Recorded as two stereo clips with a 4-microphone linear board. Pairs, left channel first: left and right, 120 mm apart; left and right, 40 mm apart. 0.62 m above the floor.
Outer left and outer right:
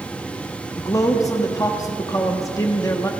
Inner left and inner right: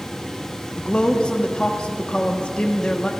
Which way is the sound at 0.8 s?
25° left (ahead or behind).